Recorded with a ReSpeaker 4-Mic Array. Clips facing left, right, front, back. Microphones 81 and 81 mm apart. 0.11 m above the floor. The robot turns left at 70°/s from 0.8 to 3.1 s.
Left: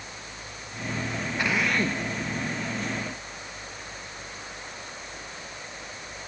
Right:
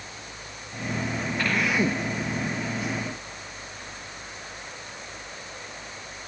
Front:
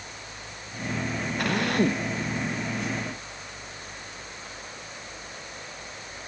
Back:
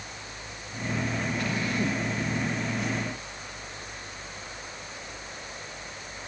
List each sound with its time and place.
1.4 s a drill: 15° left; by 2.1 s 30° right